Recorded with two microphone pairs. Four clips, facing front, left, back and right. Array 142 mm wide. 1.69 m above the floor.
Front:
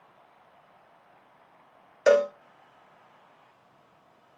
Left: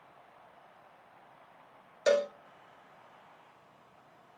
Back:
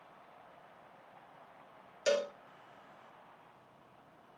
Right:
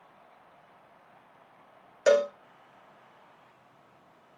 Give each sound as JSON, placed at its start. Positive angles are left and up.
{"t": 2.1, "sound": "a cowbell", "azimuth_deg": -15, "distance_m": 1.0}